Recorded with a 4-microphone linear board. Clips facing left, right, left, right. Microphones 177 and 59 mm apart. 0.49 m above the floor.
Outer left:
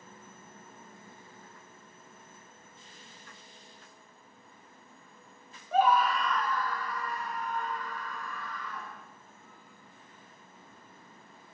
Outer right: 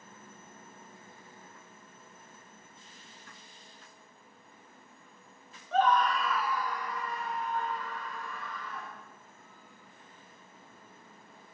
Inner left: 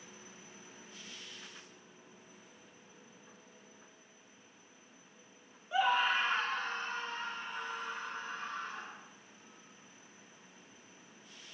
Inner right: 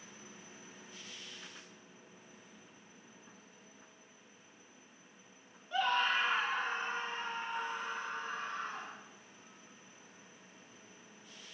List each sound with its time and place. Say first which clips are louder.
5.7 s a scream: outer left 1 dB, inner left 2 dB; 10° left (ahead or behind), 0.8 m; by 9.0 s 30° right (ahead or behind), 2 m